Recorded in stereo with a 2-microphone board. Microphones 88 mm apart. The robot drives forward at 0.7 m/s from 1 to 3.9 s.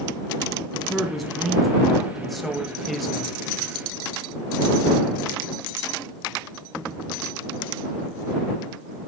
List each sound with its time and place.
0.7 s a man speaking: centre (ahead or behind), 2.5 m